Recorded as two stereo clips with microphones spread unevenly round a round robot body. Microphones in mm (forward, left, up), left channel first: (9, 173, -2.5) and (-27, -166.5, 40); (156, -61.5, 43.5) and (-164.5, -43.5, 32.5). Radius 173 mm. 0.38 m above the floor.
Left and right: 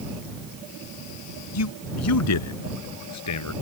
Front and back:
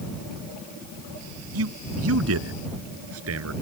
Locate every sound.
1.5 s a man speaking: 125° left